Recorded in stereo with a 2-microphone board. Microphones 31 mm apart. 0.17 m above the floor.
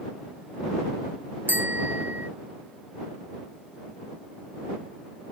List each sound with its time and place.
1.5 s a bicycle bell: 80° right